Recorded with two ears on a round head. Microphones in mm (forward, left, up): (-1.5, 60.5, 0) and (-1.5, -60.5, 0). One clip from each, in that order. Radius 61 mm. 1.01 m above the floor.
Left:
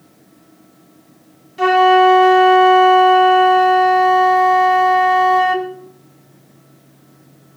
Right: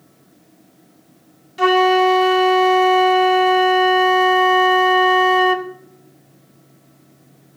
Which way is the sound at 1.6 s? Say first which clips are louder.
Left 3 dB; 25° right (ahead or behind).